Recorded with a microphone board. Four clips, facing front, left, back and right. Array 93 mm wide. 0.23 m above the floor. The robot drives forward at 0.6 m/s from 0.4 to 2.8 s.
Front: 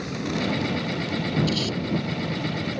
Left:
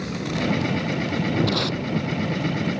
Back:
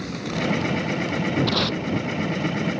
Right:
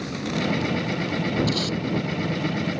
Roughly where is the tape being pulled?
Behind left.